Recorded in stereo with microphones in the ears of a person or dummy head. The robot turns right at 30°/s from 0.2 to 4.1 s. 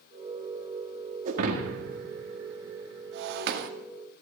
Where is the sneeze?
I don't hear a sneeze.